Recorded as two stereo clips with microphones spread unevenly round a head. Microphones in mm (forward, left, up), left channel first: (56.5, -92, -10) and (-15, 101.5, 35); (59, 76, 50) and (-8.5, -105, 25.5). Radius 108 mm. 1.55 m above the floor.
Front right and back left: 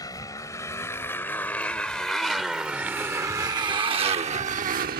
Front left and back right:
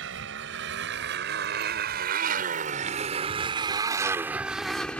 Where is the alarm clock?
No alarm clock in this recording.